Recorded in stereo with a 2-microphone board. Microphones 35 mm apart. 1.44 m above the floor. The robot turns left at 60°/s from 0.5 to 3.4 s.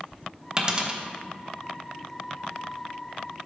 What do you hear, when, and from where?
0.6 s a dropped coin: 25° right (ahead or behind), 1.0 m